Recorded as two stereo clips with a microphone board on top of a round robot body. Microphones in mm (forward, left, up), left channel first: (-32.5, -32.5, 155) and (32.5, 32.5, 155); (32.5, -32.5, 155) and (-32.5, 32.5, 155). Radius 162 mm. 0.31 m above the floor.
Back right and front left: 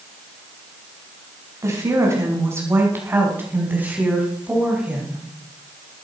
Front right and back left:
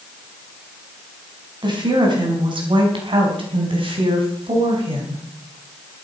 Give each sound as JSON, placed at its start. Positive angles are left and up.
{"t": 1.6, "sound": "a woman speaking", "azimuth_deg": 100, "distance_m": 5.0}